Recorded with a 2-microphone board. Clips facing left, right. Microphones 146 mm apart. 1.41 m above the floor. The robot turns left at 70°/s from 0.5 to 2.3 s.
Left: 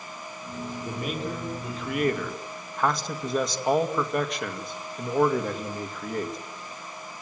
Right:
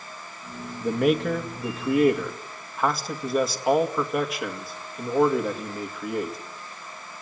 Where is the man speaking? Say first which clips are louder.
Right 12 dB; 70° right, 2 m; by 6.4 s 175° right, 2 m.